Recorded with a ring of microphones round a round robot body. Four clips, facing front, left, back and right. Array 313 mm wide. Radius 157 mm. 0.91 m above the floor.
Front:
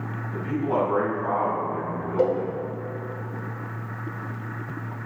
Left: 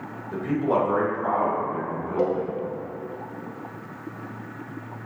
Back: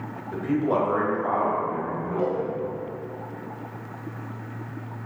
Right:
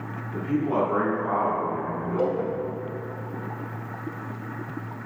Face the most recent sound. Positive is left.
turn(degrees=10)